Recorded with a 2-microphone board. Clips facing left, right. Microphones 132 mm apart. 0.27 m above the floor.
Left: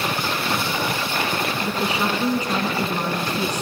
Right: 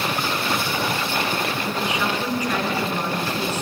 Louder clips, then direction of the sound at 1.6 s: Left 1 dB; 35° left (ahead or behind).